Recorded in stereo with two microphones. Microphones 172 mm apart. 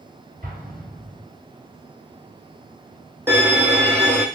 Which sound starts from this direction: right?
An explosion, at 0.4 s.